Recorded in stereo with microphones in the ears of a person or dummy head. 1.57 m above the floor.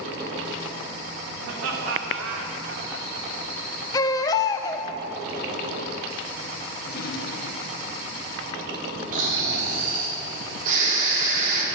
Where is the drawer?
60° left (ahead or behind), 1.5 m.